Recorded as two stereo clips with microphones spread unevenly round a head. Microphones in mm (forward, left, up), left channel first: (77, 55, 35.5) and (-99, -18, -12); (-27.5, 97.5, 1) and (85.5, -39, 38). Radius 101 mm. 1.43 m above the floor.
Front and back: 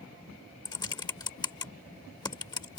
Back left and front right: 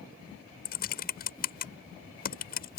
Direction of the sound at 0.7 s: 90° left.